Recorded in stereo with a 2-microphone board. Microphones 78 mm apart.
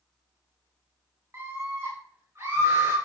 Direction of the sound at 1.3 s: 35° right (ahead or behind).